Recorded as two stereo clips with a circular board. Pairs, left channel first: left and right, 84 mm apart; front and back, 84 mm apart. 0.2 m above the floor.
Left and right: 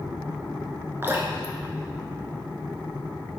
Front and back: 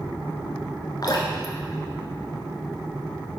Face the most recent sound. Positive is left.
turn(degrees=-30)